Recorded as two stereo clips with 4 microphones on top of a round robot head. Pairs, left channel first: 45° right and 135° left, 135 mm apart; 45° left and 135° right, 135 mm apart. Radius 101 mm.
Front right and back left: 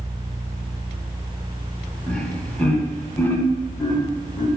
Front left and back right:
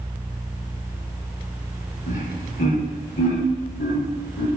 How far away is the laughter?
About 3 m.